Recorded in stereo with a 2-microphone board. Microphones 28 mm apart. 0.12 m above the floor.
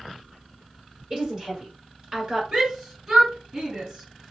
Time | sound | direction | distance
1.1 | a woman speaking | 30° right (ahead or behind) | 1.9 m
2.5 | a shout | 15° right (ahead or behind) | 1.3 m